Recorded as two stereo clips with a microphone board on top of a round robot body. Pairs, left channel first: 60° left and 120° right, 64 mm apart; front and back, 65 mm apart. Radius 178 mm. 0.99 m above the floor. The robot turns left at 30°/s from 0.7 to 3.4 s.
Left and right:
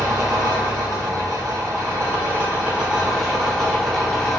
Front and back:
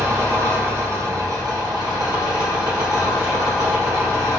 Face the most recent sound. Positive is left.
turn(degrees=150)